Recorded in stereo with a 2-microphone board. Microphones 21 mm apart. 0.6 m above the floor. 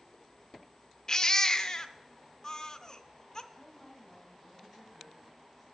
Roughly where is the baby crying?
Left.